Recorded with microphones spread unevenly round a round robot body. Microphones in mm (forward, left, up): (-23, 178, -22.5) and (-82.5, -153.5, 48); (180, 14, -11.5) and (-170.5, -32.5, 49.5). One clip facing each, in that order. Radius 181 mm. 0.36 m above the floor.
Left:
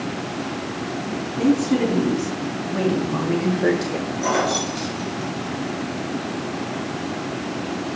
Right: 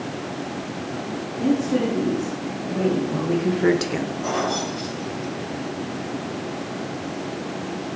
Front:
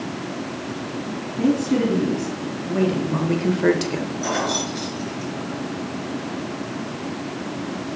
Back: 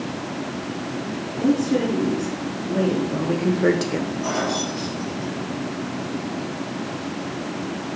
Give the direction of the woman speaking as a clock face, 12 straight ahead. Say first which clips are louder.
Left 2 dB, even; 10 o'clock.